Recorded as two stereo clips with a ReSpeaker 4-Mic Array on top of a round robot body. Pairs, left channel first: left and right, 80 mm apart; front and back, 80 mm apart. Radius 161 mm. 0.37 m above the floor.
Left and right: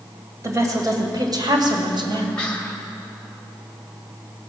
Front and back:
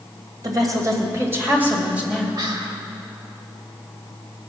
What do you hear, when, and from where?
0.4 s a woman speaking: 140° right, 2.5 m; by 2.3 s 95° right, 2.5 m
2.4 s whispering: 160° left, 2.5 m